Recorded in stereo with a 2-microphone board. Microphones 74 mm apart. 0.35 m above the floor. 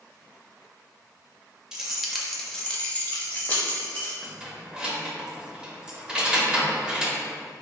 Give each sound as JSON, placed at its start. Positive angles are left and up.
{"t": 1.7, "sound": "keys jangling", "side_deg": -10, "distance_m": 0.7}
{"t": 4.2, "sound": "keys jangling", "side_deg": -10, "distance_m": 0.6}